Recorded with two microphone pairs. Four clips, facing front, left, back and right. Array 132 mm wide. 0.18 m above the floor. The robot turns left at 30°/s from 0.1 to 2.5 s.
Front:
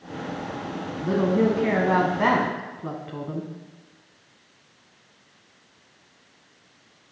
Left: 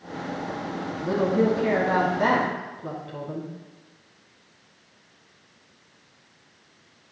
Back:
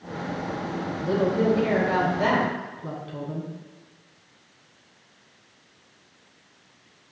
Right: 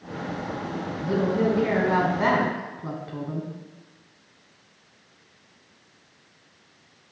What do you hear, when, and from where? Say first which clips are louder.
1.0 s a woman speaking: left 1 dB, front 1 dB; 30° left, 1.2 m; by 3.5 s 15° right, 1.2 m